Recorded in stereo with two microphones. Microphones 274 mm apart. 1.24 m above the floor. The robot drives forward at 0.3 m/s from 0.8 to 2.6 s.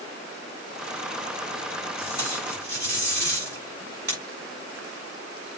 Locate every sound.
2.0 s tape being pulled: 85° right, 6 m